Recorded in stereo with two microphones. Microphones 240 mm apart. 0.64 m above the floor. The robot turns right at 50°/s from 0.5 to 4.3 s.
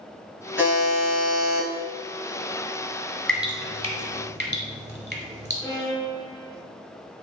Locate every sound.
0.6 s a buzzer: 70° left, 1.7 m; by 1.7 s 130° left, 1.7 m
3.3 s dripping: centre (ahead or behind), 0.8 m; by 5.5 s 40° right (ahead or behind), 0.8 m
5.6 s a violin: 15° left (ahead or behind), 0.7 m